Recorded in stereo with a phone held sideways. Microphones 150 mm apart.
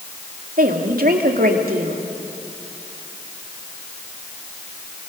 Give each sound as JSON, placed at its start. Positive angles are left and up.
{"t": 0.6, "sound": "a woman speaking", "side_deg": -80, "distance_m": 2.5}